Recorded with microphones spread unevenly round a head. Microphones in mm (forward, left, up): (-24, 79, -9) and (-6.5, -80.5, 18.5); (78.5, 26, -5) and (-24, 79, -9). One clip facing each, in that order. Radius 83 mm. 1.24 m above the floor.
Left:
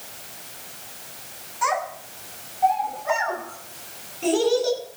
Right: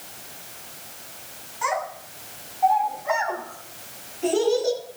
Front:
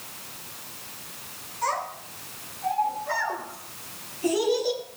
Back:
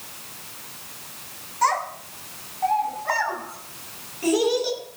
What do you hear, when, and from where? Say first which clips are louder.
1.6 s a child speaking: left 2 dB, back 6 dB; 145° left, 7 m; by 4.8 s 140° left, 10.5 m